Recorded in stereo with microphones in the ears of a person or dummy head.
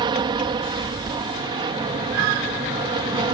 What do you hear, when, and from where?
0.0 s an aircraft: 20° right (ahead or behind)